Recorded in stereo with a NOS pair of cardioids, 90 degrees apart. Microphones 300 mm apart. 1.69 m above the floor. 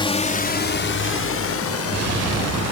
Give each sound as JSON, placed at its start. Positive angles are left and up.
{"t": 0.0, "sound": "a drone", "azimuth_deg": 15}